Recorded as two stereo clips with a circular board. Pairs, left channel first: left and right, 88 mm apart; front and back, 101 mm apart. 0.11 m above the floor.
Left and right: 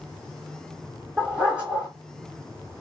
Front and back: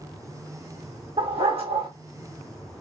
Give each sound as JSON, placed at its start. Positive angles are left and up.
{"t": 1.2, "sound": "a dog barking", "azimuth_deg": -165, "distance_m": 2.0}